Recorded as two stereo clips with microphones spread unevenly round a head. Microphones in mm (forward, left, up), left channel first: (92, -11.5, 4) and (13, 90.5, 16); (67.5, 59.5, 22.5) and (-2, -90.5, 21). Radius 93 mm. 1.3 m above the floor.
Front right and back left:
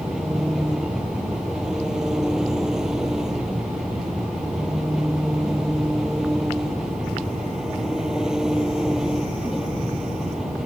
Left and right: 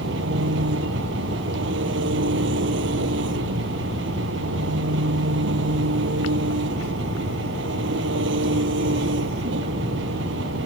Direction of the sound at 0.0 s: 145° right.